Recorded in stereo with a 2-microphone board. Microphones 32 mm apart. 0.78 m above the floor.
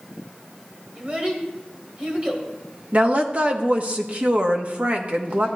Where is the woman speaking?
40° right (ahead or behind), 1.1 m.